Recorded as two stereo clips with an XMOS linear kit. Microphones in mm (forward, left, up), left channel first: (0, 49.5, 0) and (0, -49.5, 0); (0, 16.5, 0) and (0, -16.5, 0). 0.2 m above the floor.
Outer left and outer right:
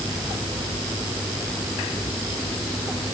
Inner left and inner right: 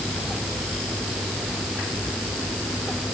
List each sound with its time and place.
Only background noise.